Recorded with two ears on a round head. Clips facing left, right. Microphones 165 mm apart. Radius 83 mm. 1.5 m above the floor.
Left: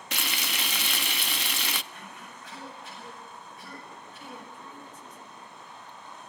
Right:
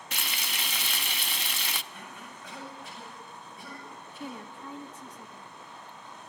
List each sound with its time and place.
0.1 s frying: 55° left (ahead or behind), 0.7 m
1.9 s a cough: 80° right, 8.5 m
4.2 s a woman speaking: 55° right (ahead or behind), 1.0 m